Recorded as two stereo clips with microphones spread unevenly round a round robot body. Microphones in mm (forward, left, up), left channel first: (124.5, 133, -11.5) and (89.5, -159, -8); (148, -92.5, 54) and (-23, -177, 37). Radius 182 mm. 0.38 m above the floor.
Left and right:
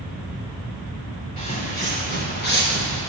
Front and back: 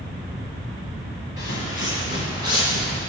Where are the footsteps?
15° left, 1.9 m; by 3.0 s 35° left, 3 m.